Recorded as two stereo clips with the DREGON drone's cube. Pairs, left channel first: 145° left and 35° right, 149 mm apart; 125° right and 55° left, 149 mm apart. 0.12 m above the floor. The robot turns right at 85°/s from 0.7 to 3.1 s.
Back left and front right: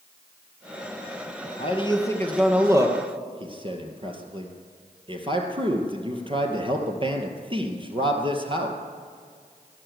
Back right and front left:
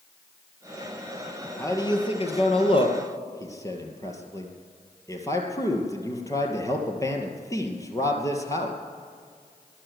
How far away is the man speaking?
About 2 m.